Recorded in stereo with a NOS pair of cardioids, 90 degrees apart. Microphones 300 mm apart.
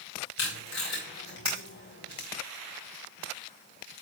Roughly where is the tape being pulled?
Ahead left.